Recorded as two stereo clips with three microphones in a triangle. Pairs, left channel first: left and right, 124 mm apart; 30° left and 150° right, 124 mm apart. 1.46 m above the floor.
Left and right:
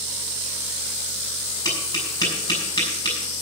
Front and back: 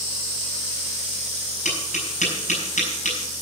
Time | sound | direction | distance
1.6 | tapping | 30° left | 6 m